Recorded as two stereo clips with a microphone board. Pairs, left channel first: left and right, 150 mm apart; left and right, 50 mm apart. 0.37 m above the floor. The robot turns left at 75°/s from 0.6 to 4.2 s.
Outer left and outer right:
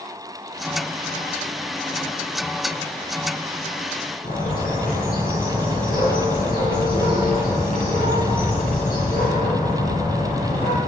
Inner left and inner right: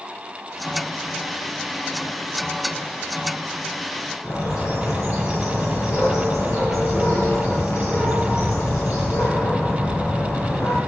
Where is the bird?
75° left (ahead or behind), 4.5 m.